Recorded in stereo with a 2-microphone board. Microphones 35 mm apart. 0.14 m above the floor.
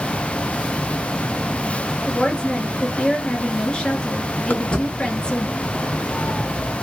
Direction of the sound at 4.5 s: 85° left.